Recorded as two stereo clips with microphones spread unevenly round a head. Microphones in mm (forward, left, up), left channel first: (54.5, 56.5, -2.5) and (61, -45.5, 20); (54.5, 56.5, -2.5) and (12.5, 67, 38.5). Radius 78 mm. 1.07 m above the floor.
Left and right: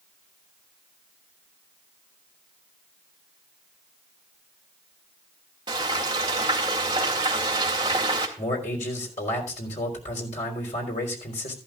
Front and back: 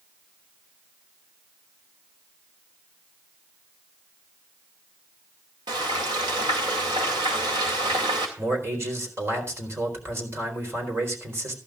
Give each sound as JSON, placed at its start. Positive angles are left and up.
{"t": 5.7, "sound": "frying", "azimuth_deg": -150, "distance_m": 2.0}
{"t": 8.4, "sound": "a man speaking", "azimuth_deg": 130, "distance_m": 4.0}